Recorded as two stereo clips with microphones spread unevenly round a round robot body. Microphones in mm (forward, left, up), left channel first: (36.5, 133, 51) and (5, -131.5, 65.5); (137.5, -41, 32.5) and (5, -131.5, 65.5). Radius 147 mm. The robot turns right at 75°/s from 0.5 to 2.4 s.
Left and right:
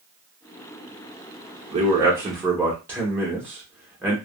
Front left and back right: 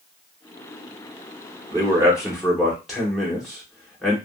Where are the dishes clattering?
I don't hear dishes clattering.